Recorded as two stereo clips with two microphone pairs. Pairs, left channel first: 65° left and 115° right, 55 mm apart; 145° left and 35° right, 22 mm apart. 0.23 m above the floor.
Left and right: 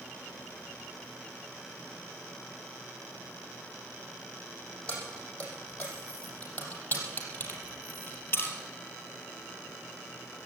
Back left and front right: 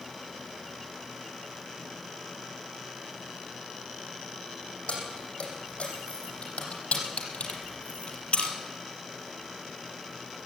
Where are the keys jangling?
135° left, 7 m; by 8.6 s 115° left, 3 m.